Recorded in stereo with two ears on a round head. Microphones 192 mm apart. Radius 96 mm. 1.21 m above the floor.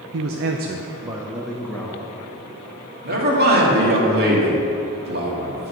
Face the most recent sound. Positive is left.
turn(degrees=-50)  # may be behind; listen again after turning